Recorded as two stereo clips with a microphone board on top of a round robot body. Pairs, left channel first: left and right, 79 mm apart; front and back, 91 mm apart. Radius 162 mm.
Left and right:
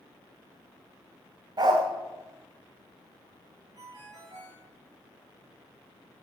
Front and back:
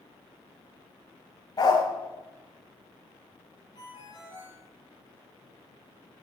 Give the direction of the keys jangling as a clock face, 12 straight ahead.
I don't hear keys jangling.